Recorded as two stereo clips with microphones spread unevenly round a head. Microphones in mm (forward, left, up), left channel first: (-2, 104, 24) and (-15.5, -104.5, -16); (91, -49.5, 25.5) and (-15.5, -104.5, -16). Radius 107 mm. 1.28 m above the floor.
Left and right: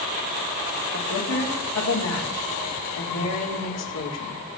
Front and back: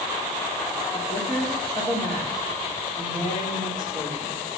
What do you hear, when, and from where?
0.9 s a woman speaking: 100° left, 3.5 m